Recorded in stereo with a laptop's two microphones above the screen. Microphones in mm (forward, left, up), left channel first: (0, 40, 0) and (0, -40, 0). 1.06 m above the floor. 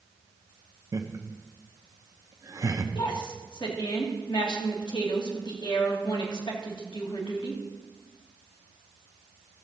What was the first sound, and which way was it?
Laughter, 45° right (ahead or behind).